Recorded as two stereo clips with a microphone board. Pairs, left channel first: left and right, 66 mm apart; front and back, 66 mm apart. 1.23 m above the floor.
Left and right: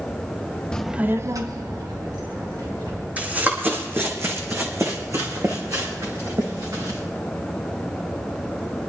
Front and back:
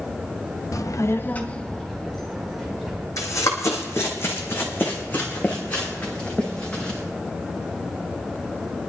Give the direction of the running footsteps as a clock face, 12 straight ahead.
1 o'clock.